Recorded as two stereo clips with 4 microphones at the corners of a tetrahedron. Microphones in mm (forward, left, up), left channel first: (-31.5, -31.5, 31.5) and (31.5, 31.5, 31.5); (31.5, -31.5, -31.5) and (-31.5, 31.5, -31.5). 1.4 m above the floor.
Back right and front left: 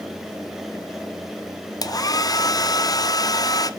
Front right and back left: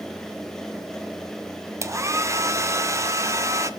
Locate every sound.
1.8 s a hair dryer: 175° right, 0.5 m